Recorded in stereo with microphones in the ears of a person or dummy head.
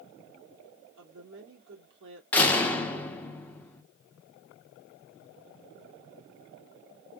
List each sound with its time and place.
1.0 s a woman speaking: 70° right (ahead or behind), 2 m
2.3 s a door slam: 10° left (ahead or behind), 0.8 m